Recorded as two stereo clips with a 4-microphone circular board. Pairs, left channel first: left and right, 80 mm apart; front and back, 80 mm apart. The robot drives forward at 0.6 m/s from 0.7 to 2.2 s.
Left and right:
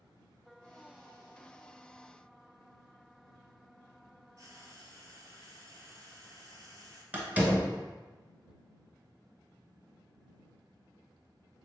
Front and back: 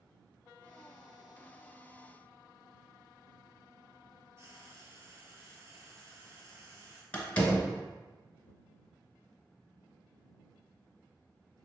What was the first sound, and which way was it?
Frying, 130° right.